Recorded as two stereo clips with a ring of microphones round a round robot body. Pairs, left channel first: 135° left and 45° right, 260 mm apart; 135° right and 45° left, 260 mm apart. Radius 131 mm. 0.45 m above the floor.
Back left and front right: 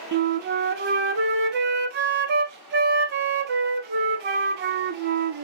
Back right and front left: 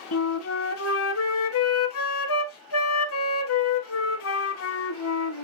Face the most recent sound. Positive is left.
turn(degrees=-95)